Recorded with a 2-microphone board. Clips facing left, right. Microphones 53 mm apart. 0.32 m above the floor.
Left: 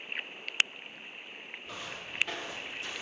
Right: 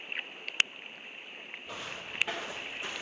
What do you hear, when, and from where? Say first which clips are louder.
1.7 s footsteps: right 1 dB; 5° right (ahead or behind), 2.0 m; by 3.0 s 30° right (ahead or behind), 1.0 m